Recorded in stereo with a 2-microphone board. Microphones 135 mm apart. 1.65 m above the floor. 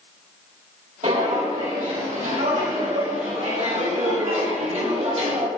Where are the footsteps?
70° right (ahead or behind), 4.5 m; by 5.5 s 50° right (ahead or behind), 3.5 m.